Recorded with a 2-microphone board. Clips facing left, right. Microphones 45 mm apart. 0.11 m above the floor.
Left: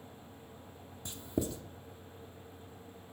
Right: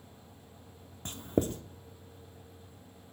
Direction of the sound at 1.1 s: 45° right (ahead or behind).